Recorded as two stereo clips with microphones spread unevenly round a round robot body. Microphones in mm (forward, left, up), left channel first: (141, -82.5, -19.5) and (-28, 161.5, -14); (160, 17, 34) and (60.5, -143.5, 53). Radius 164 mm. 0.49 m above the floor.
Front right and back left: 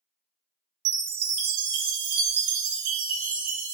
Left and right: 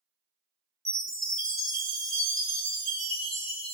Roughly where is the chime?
Behind left.